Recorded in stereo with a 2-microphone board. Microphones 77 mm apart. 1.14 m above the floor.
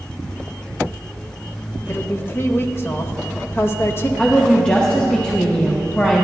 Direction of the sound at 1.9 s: 35° left (ahead or behind).